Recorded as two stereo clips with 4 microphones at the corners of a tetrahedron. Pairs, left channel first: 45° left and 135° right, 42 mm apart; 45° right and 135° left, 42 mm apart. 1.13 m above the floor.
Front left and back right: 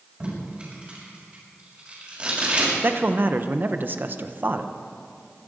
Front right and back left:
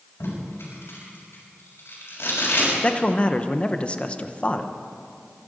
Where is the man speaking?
100° right, 0.9 m.